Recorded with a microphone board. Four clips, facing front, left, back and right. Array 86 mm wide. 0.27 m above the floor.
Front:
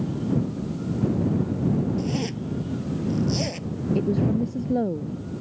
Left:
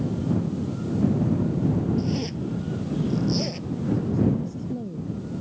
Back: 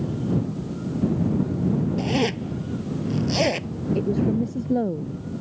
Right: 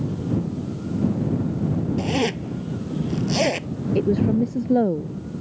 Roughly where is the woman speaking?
Right.